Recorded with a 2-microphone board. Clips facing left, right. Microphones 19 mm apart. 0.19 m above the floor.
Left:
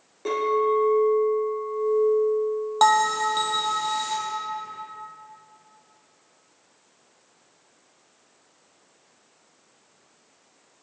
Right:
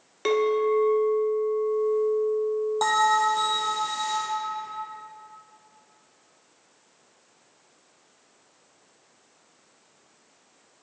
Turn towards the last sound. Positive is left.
turn(degrees=35)  # may be behind; listen again after turning